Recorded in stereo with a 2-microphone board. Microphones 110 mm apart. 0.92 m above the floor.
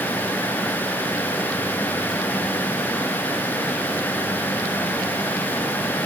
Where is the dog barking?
I don't hear a dog barking.